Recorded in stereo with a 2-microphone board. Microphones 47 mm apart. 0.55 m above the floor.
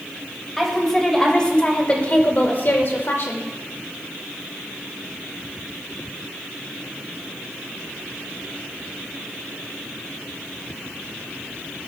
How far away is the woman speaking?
About 3 m.